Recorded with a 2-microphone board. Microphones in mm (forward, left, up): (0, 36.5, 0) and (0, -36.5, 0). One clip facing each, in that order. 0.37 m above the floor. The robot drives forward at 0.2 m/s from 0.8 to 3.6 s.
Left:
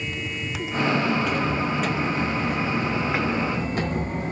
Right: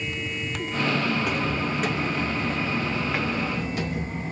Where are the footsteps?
15° right (ahead or behind), 1.3 m; by 4.3 s 60° left (ahead or behind), 0.7 m.